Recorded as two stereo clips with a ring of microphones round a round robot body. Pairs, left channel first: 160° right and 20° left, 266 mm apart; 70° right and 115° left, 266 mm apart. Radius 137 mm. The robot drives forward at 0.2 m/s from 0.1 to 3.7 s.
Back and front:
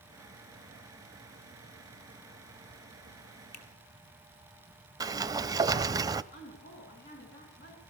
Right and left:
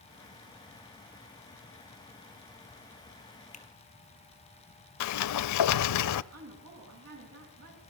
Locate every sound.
3.5 s a finger snap: 130° right, 2 m
5.0 s a sliding door: 55° right, 0.6 m
6.3 s a woman speaking: 150° left, 9.5 m